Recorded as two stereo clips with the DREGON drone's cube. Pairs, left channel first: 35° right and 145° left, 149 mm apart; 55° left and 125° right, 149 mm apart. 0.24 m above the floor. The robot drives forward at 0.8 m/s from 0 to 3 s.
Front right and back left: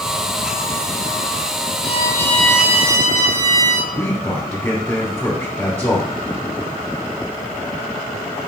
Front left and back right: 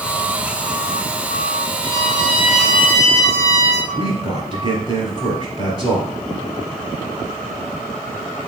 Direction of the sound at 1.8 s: 70° right.